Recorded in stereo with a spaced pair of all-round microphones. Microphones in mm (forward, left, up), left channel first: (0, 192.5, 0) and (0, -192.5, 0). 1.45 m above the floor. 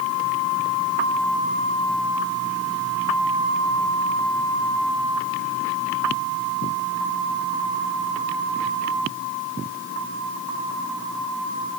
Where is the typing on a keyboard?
I don't hear typing on a keyboard.